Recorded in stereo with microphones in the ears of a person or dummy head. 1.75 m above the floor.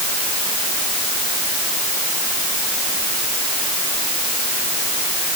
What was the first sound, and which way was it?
Only background noise.